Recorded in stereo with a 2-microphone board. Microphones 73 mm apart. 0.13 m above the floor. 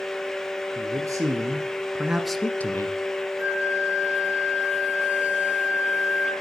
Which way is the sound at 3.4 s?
20° right (ahead or behind).